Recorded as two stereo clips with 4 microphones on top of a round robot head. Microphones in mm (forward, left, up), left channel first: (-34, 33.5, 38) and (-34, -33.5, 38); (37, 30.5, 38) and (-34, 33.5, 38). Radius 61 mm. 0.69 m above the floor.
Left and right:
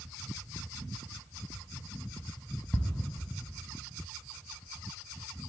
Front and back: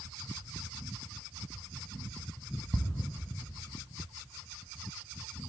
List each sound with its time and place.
2.7 s ticking: 160° left, 0.7 m